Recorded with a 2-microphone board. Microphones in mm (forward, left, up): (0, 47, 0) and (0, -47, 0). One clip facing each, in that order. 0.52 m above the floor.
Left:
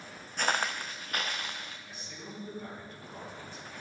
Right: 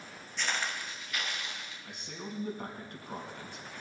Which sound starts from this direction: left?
Footsteps, at 0.4 s.